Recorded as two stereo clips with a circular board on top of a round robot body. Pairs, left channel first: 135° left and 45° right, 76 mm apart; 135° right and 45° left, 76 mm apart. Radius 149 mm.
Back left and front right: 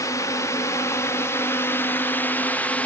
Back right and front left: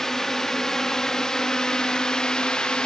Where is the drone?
145° left; by 2.9 s 165° left.